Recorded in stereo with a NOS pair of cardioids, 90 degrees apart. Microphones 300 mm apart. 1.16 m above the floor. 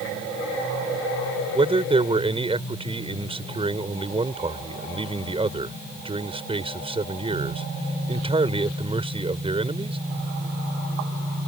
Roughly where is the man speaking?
Ahead.